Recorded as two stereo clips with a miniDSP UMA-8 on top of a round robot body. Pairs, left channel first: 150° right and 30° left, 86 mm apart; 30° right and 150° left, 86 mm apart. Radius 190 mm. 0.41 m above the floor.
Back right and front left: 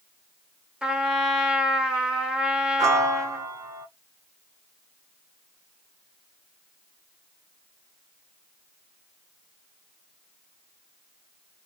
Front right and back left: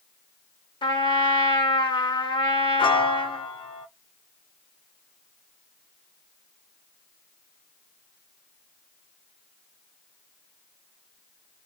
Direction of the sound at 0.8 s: 50° right.